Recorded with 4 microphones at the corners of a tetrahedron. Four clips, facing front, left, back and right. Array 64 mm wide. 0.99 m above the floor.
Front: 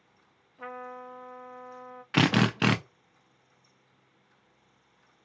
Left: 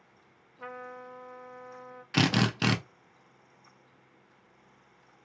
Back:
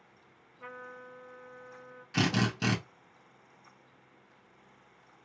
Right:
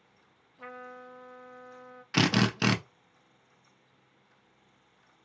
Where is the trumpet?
5° left, 0.5 m.